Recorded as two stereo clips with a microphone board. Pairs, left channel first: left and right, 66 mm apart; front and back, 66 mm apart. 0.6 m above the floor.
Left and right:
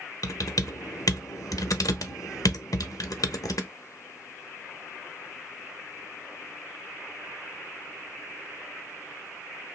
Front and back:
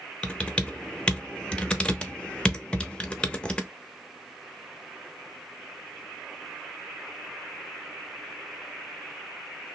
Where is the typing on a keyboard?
75° left, 0.5 m.